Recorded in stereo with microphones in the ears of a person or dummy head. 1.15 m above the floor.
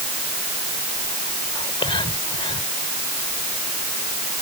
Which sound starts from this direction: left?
Whispering, at 1.6 s.